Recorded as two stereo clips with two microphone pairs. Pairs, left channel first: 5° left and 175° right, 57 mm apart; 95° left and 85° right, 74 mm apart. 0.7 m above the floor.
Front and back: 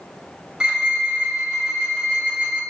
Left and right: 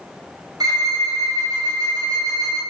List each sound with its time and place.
0.6 s a violin: 105° right, 0.9 m